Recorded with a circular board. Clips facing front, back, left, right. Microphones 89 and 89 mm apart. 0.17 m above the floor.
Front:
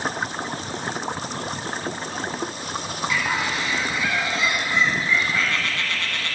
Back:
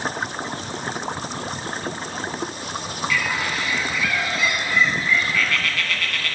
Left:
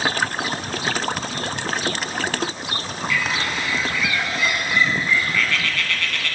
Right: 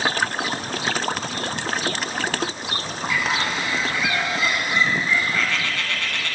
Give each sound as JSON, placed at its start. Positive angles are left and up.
{"t": 3.1, "sound": "a bird", "azimuth_deg": -45, "distance_m": 1.1}